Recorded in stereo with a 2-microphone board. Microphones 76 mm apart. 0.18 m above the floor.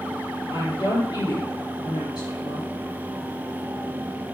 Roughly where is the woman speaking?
Left.